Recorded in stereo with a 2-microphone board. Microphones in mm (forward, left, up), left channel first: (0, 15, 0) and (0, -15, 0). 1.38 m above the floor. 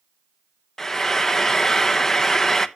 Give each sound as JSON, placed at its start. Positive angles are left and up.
{"t": 0.8, "sound": "frying", "side_deg": 15, "distance_m": 0.6}